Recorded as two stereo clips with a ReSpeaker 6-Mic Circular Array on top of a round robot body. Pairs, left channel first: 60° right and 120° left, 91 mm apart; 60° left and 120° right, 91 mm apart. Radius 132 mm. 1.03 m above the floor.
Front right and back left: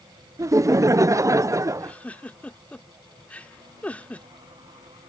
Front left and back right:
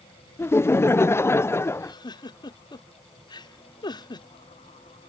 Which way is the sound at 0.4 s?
100° left.